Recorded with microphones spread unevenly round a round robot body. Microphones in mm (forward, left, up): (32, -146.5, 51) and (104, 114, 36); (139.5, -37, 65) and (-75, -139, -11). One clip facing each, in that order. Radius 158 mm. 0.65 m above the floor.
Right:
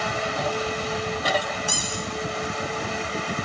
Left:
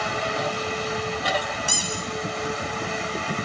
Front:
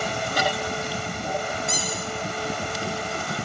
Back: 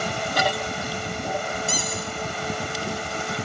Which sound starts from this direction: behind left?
A squeak, at 1.7 s.